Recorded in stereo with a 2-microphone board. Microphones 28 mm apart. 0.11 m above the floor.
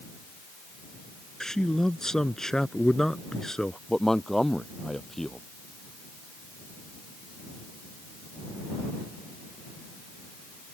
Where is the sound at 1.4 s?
20° left (ahead or behind).